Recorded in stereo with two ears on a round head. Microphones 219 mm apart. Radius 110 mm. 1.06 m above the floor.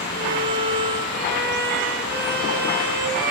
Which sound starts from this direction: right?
A violin, at 0.1 s.